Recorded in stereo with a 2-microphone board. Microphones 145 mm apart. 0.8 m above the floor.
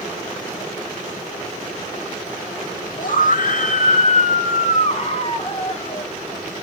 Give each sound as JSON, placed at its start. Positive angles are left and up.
{"t": 3.0, "sound": "a scream", "side_deg": 70, "distance_m": 1.7}